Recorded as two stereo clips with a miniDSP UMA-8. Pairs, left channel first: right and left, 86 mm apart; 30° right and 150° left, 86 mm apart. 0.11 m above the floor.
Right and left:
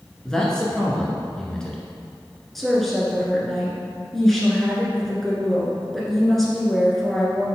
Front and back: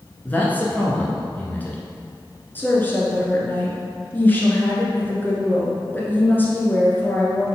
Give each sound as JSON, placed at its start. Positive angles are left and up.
{"t": 0.2, "sound": "a man speaking", "azimuth_deg": -25, "distance_m": 1.2}
{"t": 2.5, "sound": "a woman speaking", "azimuth_deg": -5, "distance_m": 1.4}